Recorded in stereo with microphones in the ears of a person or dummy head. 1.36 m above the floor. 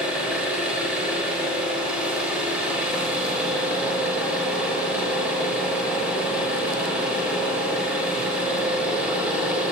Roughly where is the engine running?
Centre.